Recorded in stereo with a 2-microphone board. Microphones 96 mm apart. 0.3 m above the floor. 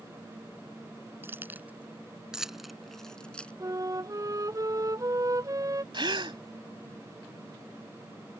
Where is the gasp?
55° right (ahead or behind).